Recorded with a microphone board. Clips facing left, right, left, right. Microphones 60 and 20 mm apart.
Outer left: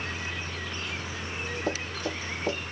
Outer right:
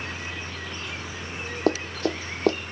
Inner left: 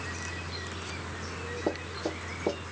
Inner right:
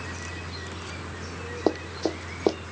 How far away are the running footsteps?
About 0.8 m.